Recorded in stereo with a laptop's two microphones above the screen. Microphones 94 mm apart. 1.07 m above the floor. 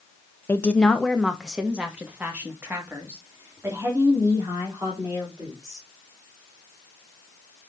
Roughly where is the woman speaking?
Left.